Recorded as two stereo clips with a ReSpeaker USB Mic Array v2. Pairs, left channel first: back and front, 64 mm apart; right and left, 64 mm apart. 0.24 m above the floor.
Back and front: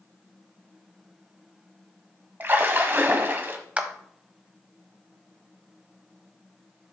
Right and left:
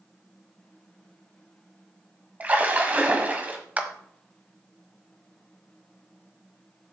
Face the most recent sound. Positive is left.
turn(degrees=50)